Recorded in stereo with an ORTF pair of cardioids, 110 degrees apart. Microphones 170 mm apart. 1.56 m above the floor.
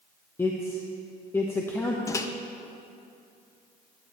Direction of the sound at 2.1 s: 15° left.